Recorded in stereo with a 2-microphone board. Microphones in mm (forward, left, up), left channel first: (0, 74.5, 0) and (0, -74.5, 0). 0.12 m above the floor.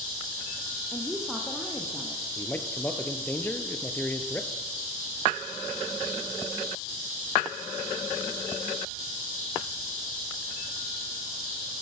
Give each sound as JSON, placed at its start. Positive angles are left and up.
{"t": 0.9, "sound": "a woman speaking", "side_deg": 5, "distance_m": 4.5}
{"t": 2.4, "sound": "a man speaking", "side_deg": 15, "distance_m": 3.0}